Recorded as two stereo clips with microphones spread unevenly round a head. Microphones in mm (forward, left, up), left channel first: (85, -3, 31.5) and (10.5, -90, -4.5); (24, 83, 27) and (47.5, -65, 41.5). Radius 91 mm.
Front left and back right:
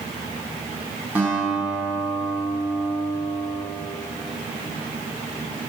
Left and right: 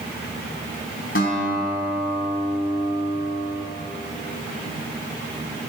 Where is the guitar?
145° left, 4.5 m.